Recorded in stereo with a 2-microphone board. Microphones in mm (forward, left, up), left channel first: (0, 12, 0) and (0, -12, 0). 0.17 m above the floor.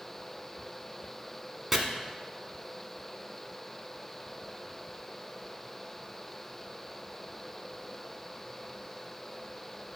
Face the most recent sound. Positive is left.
turn(degrees=-10)  # may be behind; listen again after turning